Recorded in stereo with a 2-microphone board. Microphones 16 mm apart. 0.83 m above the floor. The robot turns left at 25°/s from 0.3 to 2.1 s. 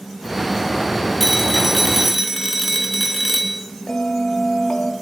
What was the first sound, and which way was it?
A phone ringing, 15° left (ahead or behind).